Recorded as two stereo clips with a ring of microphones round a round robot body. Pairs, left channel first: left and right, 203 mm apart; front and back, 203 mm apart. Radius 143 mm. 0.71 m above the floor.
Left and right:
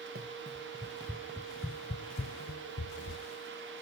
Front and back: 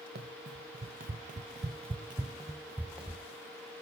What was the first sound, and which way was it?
Running footsteps, 135° right.